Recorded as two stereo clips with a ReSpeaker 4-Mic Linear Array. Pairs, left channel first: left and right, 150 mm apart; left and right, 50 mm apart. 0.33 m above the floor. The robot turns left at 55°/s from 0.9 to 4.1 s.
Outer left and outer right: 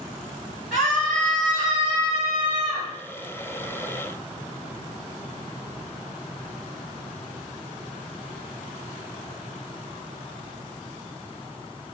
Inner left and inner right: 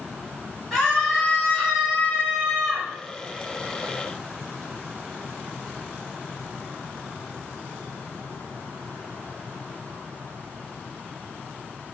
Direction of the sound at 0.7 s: 175° left.